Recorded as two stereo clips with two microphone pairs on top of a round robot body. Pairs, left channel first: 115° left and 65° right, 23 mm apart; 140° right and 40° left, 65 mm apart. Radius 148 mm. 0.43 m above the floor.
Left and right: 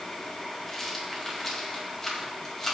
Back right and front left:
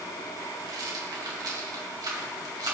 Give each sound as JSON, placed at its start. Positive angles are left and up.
{"t": 0.7, "sound": "a rattle", "azimuth_deg": 45, "distance_m": 2.5}